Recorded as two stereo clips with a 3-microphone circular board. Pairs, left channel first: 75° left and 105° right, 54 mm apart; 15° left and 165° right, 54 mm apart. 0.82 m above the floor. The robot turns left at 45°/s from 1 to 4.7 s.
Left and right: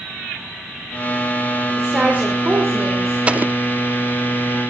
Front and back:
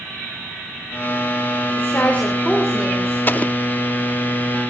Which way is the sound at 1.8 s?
30° right.